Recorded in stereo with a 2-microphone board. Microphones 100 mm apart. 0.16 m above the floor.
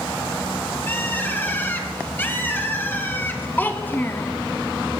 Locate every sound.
0.9 s a bird: 20° left (ahead or behind), 1.5 m
3.6 s a child speaking: 20° left (ahead or behind), 0.8 m